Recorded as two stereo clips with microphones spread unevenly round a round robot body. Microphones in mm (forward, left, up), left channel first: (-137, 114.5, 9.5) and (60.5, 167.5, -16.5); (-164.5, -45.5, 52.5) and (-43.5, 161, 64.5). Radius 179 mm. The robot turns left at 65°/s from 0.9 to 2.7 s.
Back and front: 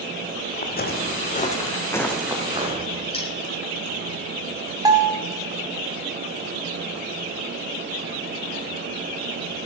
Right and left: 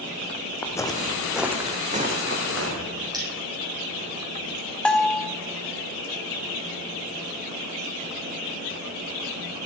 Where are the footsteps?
155° left, 1.6 m; by 3.0 s 80° left, 3 m.